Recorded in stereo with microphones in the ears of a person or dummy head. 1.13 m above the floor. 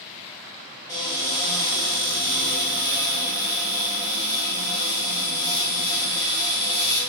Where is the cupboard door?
5° right (ahead or behind), 1.7 m.